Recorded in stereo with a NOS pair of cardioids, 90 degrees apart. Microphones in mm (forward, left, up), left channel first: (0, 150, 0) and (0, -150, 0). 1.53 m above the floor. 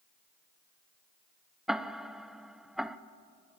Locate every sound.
1.7 s ticking: straight ahead, 0.7 m